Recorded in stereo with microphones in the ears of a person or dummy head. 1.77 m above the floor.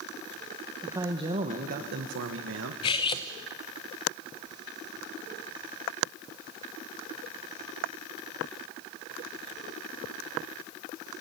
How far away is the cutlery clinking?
About 0.9 m.